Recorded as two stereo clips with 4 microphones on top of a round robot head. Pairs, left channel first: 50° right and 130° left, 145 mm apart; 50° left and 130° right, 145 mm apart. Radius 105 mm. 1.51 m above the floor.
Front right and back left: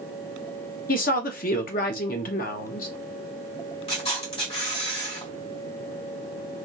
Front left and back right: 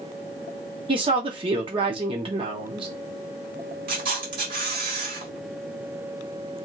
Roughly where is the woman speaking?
Right.